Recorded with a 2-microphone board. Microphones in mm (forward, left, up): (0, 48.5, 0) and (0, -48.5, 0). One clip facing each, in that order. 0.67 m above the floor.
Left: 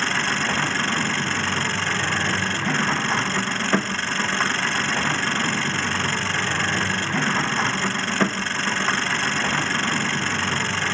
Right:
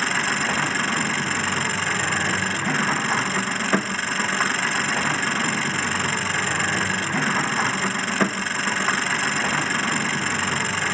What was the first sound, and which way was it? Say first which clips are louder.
An engine running: even; 5° right (ahead or behind).